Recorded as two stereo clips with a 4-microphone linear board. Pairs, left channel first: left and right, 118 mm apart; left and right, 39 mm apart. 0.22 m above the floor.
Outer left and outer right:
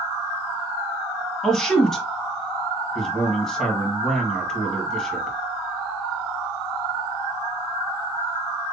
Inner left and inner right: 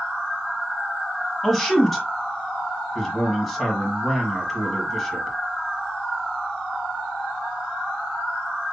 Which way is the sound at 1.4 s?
5° left (ahead or behind).